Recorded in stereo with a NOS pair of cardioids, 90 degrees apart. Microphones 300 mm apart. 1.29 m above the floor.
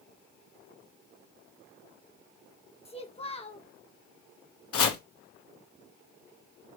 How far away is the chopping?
About 1.3 m.